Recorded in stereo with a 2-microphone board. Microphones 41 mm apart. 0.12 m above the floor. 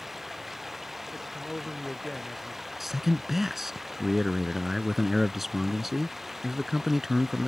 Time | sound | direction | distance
0.0 | running water | 5° right (ahead or behind) | ?
1.1 | a man speaking | 10° left (ahead or behind) | ?
2.8 | a man speaking | 5° right (ahead or behind) | ?